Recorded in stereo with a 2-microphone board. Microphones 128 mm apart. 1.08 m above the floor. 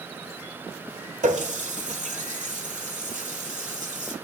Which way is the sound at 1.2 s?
80° right.